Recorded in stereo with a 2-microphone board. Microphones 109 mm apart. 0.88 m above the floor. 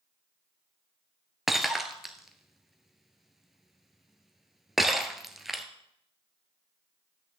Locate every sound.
1.5 s breaking glass: centre (ahead or behind), 0.9 m